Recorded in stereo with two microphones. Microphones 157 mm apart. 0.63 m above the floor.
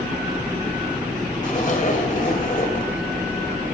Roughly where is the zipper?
Left.